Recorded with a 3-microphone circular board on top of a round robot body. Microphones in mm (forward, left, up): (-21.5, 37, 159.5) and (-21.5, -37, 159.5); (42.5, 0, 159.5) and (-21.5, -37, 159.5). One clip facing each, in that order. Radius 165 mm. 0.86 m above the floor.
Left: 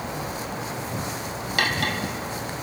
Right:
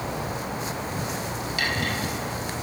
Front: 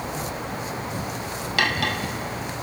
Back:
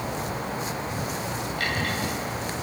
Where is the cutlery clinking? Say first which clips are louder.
Left 3 dB, front 6 dB; 50° left, 1.7 m.